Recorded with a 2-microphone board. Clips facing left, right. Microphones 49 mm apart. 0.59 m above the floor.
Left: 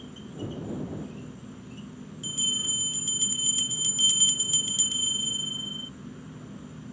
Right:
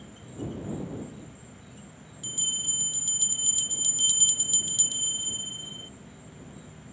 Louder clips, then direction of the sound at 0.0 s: Left 1 dB; 50° left (ahead or behind).